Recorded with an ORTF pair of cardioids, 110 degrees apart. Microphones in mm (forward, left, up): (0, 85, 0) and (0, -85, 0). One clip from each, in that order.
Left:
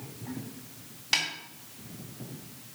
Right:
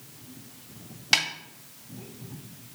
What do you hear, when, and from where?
1.1 s a snare drum: 30° right, 1.8 m